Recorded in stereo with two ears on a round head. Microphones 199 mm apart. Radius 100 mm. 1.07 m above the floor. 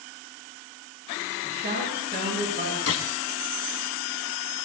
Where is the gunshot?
65° left (ahead or behind), 2 m.